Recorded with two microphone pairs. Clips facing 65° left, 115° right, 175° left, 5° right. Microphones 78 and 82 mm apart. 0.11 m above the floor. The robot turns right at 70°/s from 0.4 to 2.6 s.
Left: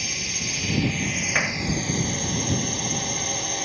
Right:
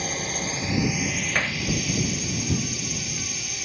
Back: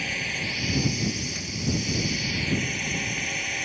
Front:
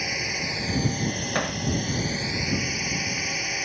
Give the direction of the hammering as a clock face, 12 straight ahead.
1 o'clock.